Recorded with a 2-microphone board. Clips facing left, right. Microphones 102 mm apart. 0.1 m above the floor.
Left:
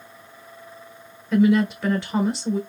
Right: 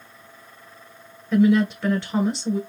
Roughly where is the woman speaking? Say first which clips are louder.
Even; centre.